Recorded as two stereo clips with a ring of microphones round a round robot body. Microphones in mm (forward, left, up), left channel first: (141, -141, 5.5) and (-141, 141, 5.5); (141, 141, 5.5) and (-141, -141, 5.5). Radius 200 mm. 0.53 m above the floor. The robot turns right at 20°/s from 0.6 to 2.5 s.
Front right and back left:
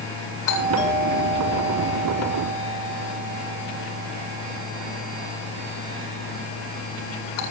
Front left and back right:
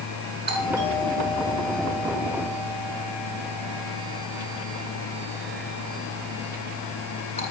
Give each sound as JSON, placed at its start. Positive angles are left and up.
{"t": 0.5, "sound": "a doorbell", "azimuth_deg": -70, "distance_m": 8.0}